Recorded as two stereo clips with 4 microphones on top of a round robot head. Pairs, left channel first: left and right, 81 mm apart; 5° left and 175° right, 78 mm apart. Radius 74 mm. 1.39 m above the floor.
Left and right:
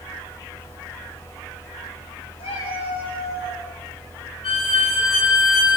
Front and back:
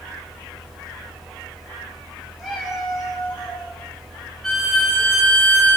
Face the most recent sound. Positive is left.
turn(degrees=90)